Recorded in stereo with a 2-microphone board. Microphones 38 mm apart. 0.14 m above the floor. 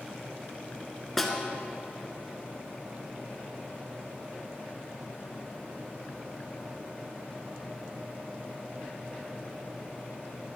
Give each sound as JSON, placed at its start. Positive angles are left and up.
{"t": 1.2, "sound": "a snare drum", "side_deg": 5, "distance_m": 1.1}